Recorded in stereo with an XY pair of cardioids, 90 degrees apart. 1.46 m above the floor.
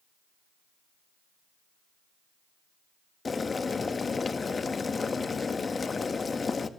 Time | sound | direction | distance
3.2 | boiling | 40° left | 1.7 m